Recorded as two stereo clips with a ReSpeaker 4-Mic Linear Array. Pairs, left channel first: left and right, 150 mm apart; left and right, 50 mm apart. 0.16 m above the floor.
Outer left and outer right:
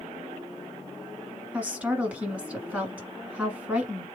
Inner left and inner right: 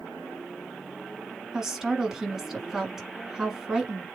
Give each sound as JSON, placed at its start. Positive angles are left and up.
{"t": 1.5, "sound": "a woman speaking", "side_deg": -10, "distance_m": 1.3}